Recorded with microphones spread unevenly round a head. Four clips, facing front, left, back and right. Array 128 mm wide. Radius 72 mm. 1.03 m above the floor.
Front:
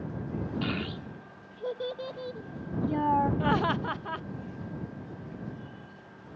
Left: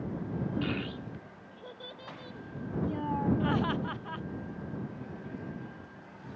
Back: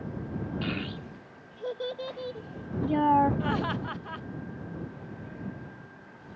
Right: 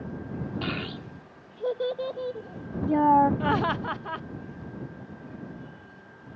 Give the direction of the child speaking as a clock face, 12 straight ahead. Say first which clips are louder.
Right 1 dB, front 1 dB; 3 o'clock.